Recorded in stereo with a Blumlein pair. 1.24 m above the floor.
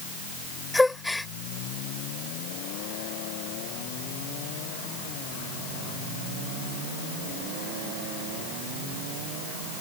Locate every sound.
0.7 s a gasp: 5° left